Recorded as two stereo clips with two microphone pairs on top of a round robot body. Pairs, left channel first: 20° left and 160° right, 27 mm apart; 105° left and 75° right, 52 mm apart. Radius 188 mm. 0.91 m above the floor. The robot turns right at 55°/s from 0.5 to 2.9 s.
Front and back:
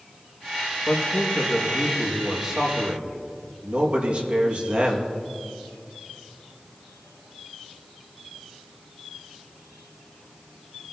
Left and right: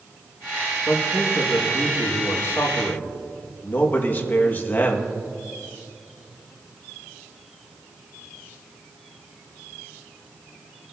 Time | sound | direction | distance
0.9 | a man speaking | 45° left | 2 m